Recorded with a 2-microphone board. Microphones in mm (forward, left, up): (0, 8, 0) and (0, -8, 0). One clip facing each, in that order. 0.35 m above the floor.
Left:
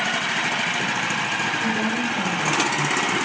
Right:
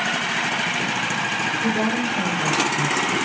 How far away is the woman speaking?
About 6 m.